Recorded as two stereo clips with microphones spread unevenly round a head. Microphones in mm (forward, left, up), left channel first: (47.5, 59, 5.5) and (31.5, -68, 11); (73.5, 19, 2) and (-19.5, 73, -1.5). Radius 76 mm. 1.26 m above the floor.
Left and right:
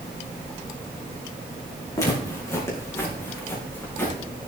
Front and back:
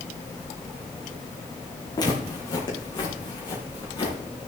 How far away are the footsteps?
About 4.5 m.